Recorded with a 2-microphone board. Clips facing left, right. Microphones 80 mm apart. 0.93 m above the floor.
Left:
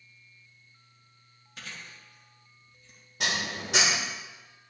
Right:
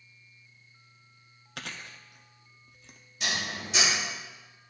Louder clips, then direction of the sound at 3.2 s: Left 2 dB; 70° left (ahead or behind).